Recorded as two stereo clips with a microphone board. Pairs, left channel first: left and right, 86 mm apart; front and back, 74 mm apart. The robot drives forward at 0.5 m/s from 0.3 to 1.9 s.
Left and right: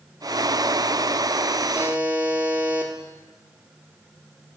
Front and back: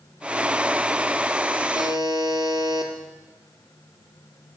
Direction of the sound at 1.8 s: 165° right.